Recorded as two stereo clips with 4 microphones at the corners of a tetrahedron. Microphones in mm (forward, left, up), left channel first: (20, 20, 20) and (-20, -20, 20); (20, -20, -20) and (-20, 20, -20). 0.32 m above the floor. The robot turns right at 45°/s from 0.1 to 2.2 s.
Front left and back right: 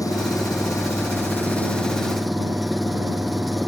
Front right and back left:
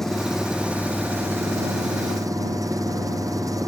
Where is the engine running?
40° left; by 3.7 s 135° left.